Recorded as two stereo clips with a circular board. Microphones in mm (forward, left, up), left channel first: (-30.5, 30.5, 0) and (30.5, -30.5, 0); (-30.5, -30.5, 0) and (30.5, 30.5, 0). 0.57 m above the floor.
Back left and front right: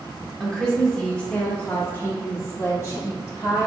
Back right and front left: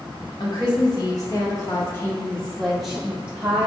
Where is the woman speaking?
140° right, 1.5 m; by 3.7 s 105° left, 1.2 m.